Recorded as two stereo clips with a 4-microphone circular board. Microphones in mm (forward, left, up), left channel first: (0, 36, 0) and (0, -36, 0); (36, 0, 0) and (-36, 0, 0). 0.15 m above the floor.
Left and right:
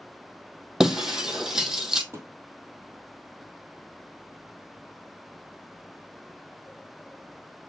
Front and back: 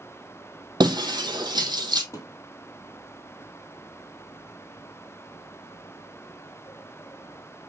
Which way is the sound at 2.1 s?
45° right.